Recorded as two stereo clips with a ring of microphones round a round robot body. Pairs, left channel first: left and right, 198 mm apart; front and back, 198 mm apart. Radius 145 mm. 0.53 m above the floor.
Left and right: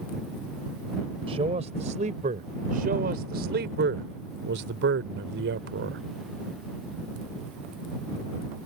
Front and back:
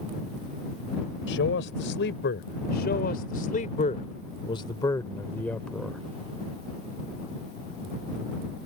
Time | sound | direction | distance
1.3 | a man speaking | 25° right | ?